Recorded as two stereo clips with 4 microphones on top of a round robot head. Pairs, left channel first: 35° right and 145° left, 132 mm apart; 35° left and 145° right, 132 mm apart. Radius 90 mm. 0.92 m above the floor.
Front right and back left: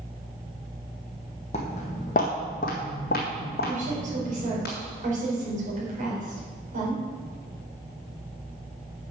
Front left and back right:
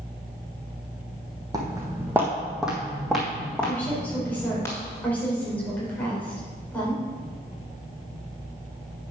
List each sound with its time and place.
1.5 s footsteps: 80° right, 2.0 m; by 4.7 s 35° right, 3.5 m
3.7 s a woman speaking: 115° left, 4.5 m